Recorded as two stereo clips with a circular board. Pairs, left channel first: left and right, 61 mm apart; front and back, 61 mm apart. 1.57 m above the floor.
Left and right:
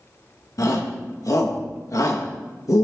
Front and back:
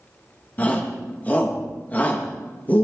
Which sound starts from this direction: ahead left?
A shout, at 0.6 s.